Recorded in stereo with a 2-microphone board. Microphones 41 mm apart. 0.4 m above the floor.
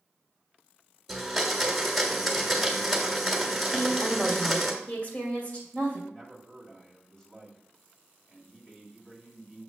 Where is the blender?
Centre (ahead or behind), 1.3 m.